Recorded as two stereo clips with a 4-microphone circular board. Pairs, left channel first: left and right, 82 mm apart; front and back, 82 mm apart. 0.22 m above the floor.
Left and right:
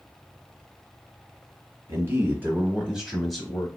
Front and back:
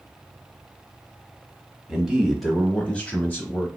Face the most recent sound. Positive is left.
turn(degrees=20)